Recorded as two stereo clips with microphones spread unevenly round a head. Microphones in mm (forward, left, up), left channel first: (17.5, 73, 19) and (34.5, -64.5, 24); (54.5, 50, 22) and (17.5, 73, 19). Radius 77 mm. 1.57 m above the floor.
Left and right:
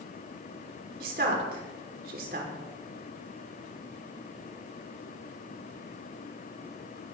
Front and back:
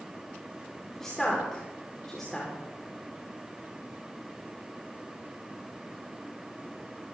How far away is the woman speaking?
About 4.5 m.